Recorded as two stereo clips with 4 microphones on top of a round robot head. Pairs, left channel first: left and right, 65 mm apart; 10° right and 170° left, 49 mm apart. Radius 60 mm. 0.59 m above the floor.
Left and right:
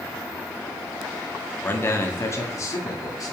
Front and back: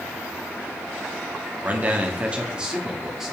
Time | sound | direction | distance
1.6 | a man speaking | 135° left | 1.2 m